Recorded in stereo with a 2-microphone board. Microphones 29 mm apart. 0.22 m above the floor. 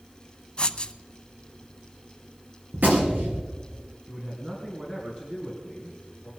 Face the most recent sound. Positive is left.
turn(degrees=-30)  # may be behind; listen again after turning